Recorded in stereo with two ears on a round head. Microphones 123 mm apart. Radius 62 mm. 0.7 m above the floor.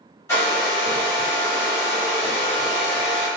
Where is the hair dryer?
20° left (ahead or behind), 1.7 m.